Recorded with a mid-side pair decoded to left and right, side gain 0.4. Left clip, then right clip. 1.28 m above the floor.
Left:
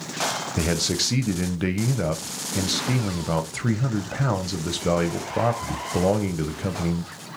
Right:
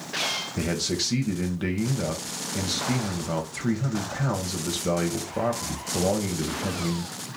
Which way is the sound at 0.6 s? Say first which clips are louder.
Left 3 dB; 40° left.